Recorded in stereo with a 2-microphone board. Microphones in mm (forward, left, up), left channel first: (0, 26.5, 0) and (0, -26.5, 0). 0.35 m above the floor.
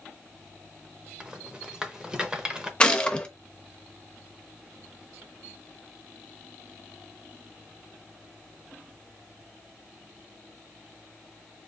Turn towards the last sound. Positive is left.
turn(degrees=20)  # may be behind; listen again after turning